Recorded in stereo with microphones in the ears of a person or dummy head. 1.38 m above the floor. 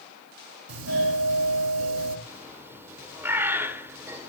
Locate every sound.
0.7 s a doorbell: 75° right (ahead or behind), 5 m
2.3 s a bird: 10° right (ahead or behind), 2.5 m